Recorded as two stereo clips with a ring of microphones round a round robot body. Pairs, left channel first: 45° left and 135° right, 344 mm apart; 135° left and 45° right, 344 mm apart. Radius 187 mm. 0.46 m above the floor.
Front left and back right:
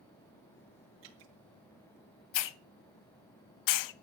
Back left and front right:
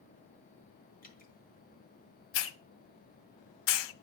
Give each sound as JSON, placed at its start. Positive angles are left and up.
{"t": 1.0, "sound": "dripping", "azimuth_deg": -160, "distance_m": 4.5}
{"t": 2.3, "sound": "a hiss", "azimuth_deg": 80, "distance_m": 0.8}